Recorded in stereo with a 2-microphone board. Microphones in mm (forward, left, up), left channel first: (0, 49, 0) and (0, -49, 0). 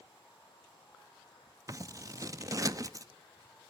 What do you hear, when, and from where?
1.7 s scissors: 35° right (ahead or behind), 0.6 m